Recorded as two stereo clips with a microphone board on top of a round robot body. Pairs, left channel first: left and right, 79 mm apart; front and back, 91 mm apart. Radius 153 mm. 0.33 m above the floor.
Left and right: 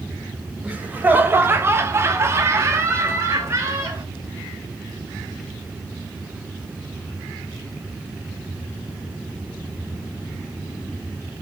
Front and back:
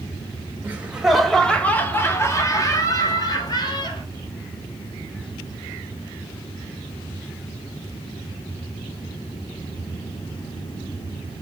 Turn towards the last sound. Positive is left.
turn(degrees=-35)